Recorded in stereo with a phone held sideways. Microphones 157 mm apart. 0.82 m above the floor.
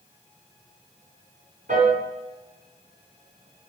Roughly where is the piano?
Right.